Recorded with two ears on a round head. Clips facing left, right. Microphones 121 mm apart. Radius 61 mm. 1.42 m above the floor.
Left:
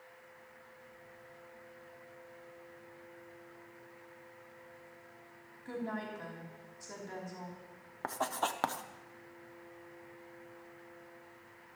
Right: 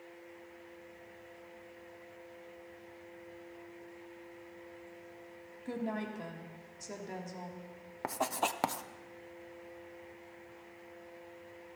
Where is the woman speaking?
25° right (ahead or behind), 3 m.